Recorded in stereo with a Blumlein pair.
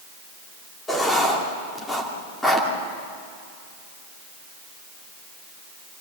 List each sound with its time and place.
0.9 s writing: 10° left, 2.5 m